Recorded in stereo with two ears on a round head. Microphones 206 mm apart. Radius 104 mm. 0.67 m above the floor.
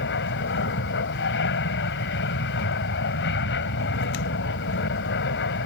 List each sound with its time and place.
0.0 s an aircraft: 55° left (ahead or behind)